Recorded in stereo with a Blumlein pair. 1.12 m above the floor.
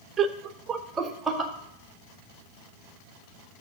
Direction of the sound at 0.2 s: 25° right.